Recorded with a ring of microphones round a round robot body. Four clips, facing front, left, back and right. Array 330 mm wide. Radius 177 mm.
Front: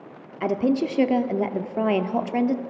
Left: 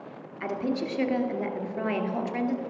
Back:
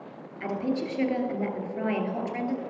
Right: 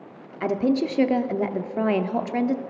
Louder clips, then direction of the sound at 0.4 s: Right 7 dB, front 7 dB; 40° right.